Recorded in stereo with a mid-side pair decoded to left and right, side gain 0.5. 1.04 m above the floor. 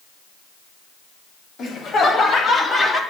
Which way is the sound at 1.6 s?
55° left.